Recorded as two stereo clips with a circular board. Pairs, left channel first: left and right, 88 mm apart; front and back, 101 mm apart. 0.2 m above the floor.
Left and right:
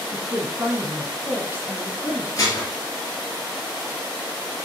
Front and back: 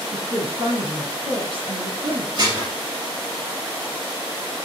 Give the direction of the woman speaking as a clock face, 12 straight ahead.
5 o'clock.